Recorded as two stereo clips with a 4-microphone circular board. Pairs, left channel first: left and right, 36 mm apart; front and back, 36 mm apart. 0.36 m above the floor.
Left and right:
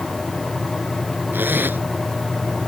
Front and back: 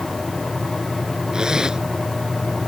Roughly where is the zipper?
Right.